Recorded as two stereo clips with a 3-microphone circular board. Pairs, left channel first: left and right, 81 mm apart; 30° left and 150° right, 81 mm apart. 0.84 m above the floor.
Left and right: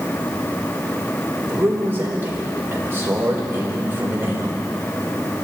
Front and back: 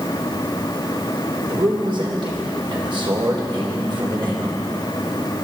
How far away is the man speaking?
About 3.5 m.